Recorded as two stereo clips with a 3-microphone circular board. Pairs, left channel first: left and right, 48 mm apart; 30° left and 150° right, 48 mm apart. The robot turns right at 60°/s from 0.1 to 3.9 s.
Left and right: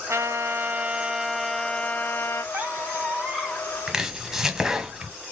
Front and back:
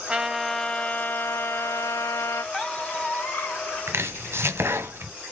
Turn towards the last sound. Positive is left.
turn(degrees=-170)